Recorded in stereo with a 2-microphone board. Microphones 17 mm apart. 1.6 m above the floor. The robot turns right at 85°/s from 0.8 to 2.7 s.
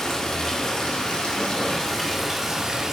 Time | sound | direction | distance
0.0 | running water | 50° left | 1.9 m